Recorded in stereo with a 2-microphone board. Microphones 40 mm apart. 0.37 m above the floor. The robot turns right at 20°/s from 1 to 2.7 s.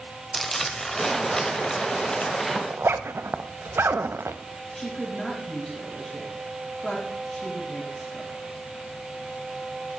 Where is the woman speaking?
5° left (ahead or behind), 3 m.